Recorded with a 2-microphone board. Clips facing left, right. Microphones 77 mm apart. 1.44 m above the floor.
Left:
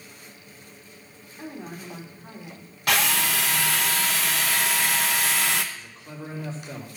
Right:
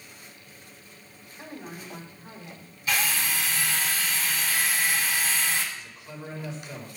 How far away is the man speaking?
About 3.5 m.